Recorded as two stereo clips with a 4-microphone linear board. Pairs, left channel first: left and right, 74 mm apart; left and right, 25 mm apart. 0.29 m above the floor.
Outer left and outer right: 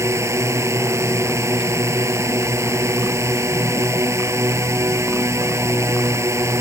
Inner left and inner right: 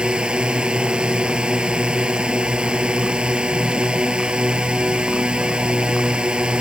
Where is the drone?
40° right (ahead or behind).